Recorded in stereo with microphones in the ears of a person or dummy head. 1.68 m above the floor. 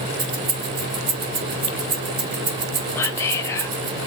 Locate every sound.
0.2 s keys jangling: 55° right (ahead or behind), 1.9 m
3.0 s whispering: 15° left (ahead or behind), 1.0 m